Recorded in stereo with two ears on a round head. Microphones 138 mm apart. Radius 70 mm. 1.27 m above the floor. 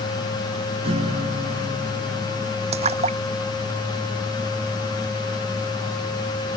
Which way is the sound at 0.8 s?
40° right (ahead or behind).